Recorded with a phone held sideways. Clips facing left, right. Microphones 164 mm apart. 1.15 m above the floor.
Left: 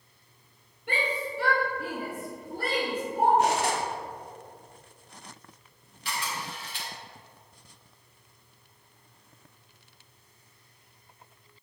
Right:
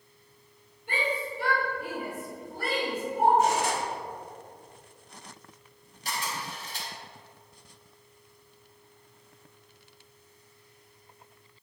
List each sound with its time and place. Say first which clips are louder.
0.9 s a shout: even; 70° left (ahead or behind), 2.5 m; by 3.3 s 45° left (ahead or behind), 4.5 m
3.4 s cutlery clinking: even; 70° left (ahead or behind), 1.5 m
6.0 s a camera shutter: even; 40° right (ahead or behind), 2.5 m